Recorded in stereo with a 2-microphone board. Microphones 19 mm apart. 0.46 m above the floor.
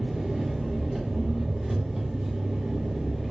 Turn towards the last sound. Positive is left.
turn(degrees=-30)  # may be behind; listen again after turning